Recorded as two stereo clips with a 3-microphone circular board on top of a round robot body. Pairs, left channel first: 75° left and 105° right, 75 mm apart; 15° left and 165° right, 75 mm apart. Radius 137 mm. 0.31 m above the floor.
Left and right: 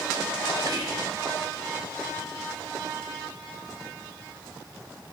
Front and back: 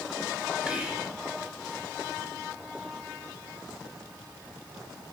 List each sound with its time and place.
0.7 s whispering: 85° right, 2.5 m